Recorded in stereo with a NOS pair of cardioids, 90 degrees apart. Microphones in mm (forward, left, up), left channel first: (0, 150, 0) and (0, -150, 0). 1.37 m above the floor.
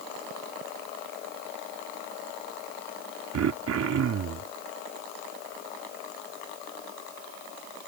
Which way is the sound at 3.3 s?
60° right.